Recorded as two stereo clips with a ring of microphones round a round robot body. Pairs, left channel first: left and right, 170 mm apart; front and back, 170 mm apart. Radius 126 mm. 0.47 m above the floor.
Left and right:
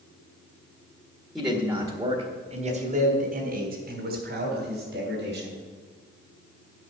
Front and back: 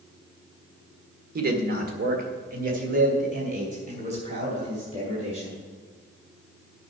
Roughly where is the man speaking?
Behind.